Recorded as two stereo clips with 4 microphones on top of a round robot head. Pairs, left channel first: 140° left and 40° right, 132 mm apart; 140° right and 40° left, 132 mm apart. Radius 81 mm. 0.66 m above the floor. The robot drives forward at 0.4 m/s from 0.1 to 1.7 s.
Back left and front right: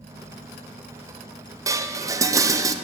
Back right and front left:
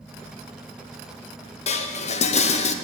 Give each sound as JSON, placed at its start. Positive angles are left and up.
{"t": 1.7, "sound": "dishes clattering", "azimuth_deg": -105, "distance_m": 0.5}